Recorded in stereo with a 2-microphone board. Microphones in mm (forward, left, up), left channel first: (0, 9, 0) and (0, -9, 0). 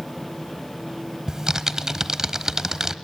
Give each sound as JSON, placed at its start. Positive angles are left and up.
{"t": 1.3, "sound": "typing on a keyboard", "side_deg": -25, "distance_m": 1.1}